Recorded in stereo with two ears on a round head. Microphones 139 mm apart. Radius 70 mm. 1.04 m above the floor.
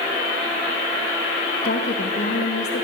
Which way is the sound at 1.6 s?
65° left (ahead or behind).